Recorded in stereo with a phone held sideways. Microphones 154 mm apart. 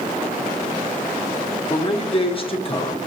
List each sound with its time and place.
1.7 s a man speaking: 35° left (ahead or behind), 0.9 m